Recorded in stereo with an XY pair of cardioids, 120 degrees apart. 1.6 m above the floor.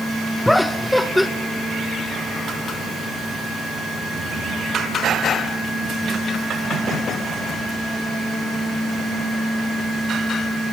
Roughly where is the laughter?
Ahead.